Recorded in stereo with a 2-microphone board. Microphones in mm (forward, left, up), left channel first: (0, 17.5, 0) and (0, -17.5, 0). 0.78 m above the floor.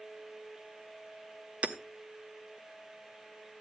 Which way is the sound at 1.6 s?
40° right (ahead or behind).